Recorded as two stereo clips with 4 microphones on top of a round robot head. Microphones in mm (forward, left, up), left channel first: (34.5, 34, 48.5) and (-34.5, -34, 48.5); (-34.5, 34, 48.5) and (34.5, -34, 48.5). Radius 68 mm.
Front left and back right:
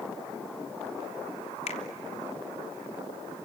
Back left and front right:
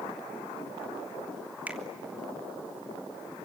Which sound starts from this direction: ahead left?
A finger snap, at 1.7 s.